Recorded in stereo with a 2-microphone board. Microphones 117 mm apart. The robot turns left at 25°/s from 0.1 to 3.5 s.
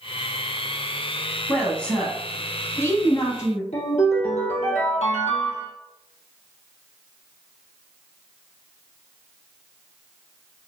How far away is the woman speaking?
About 1.1 m.